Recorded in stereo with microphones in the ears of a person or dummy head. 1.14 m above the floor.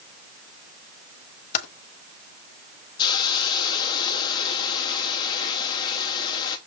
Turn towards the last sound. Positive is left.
turn(degrees=20)  # may be behind; listen again after turning